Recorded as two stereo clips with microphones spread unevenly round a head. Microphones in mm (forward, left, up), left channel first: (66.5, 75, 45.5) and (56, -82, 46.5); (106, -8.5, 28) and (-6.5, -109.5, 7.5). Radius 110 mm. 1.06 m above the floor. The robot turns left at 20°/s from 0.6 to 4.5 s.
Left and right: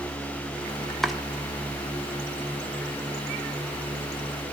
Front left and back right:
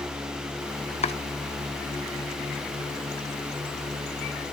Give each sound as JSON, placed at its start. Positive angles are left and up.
{"t": 1.0, "sound": "chopping", "azimuth_deg": 0, "distance_m": 1.1}